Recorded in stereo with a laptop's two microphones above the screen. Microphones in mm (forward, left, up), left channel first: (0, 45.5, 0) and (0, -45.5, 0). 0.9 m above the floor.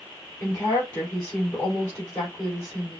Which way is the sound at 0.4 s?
35° left (ahead or behind).